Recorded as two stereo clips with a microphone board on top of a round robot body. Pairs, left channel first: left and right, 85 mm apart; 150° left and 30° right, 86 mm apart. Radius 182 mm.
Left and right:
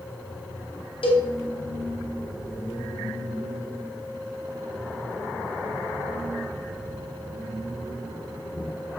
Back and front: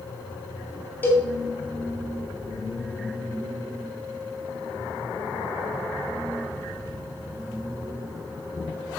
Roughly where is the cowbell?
Left.